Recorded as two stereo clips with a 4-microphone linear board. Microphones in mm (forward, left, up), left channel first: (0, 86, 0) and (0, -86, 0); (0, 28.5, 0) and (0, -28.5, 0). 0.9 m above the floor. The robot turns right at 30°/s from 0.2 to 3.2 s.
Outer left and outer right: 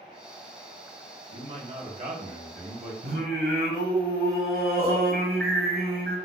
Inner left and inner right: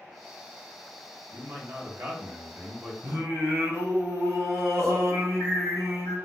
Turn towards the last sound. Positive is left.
turn(degrees=-65)  # may be behind; listen again after turning